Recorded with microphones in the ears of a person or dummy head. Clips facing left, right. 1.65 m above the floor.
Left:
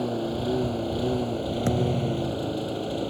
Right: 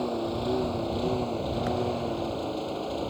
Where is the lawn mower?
5° left (ahead or behind); by 3.1 s 15° left (ahead or behind).